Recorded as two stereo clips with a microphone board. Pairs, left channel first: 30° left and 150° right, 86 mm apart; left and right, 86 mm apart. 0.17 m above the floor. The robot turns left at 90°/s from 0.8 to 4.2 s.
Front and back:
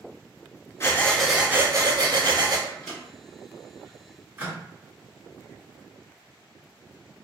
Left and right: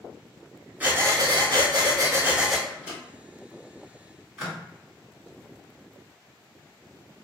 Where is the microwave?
30° right, 1.4 m; by 4.6 s 170° right, 1.4 m.